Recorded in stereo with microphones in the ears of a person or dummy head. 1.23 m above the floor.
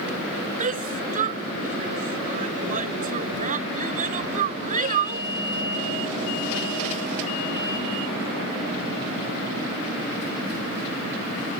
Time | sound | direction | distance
0.6 | a shout | 45° right (ahead or behind) | ?